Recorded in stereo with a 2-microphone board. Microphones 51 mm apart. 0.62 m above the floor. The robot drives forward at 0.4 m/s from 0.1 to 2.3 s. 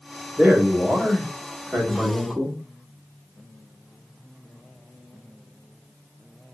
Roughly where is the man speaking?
Right.